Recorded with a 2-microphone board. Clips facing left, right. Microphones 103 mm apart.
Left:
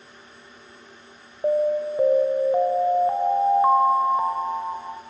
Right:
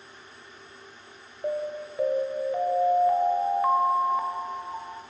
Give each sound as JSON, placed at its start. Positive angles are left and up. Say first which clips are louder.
{"t": 1.4, "sound": "an alarm", "louder": "left 9 dB", "side_deg": 30, "distance_m": 1.3}